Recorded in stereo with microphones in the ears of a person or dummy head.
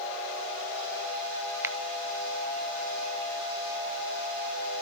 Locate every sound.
1.6 s a finger snap: 10° right (ahead or behind), 0.8 m